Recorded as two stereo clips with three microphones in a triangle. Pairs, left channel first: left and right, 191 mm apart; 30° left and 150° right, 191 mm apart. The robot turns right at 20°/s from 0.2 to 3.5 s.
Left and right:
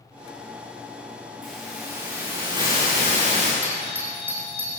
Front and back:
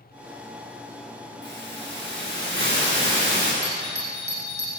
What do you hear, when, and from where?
1.4 s a hiss: straight behind, 8.5 m; by 3.5 s 140° right, 8.5 m
3.6 s a doorbell: 170° right, 8 m